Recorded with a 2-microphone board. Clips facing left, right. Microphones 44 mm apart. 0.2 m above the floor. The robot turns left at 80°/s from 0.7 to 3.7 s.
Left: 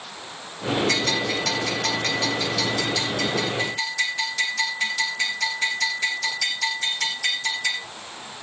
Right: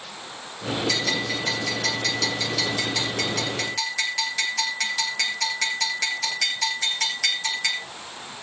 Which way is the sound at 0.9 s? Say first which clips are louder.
Left 2 dB; 45° left (ahead or behind).